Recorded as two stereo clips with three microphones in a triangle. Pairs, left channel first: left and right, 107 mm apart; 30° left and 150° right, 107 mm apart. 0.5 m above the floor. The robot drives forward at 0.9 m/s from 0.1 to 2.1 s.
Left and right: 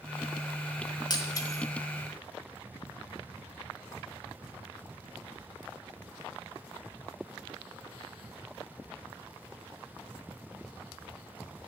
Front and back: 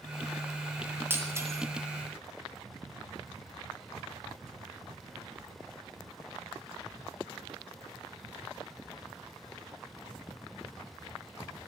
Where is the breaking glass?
140° left, 2 m; by 1.6 s 150° left, 2.5 m.